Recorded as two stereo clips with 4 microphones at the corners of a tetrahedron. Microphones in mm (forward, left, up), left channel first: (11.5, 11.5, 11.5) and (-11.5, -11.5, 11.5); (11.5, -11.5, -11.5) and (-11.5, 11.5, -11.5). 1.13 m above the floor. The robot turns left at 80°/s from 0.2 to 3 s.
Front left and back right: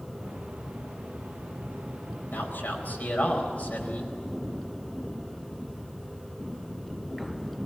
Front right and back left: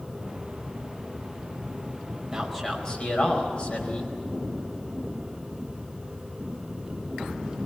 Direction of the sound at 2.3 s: 55° left.